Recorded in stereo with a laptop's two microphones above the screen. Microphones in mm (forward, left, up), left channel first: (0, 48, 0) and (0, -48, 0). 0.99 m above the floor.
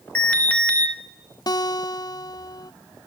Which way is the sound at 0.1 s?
15° left (ahead or behind).